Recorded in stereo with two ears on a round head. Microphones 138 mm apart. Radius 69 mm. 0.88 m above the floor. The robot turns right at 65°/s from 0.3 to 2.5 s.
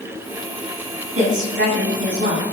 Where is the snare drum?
No snare drum in this recording.